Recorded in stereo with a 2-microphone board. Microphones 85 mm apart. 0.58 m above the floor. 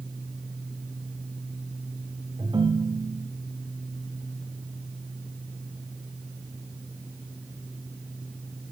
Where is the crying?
I don't hear crying.